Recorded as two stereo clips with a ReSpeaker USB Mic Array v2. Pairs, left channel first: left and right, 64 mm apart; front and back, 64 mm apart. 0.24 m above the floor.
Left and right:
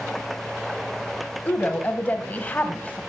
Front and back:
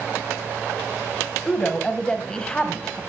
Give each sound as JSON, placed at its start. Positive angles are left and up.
{"t": 1.4, "sound": "a woman speaking", "azimuth_deg": 60, "distance_m": 1.0}